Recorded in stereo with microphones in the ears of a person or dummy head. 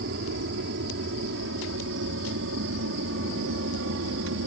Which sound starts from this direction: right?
An aircraft, at 0.0 s.